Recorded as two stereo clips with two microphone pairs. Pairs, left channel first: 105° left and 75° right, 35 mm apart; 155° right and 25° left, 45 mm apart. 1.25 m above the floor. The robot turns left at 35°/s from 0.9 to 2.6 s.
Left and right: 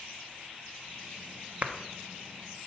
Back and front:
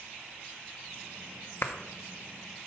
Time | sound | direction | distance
1.6 | a clap | 120° right | 0.7 m